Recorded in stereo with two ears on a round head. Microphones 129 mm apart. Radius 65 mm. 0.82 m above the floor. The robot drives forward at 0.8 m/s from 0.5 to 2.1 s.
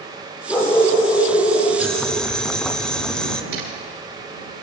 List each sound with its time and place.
0.5 s a dog barking: 15° left (ahead or behind), 7 m; by 1.7 s 10° left (ahead or behind), 8 m
1.8 s boiling: 5° left (ahead or behind), 1.8 m
3.5 s a camera shutter: 70° right (ahead or behind), 8.5 m